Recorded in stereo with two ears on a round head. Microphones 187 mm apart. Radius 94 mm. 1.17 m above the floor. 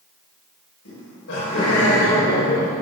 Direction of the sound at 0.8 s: 80° left.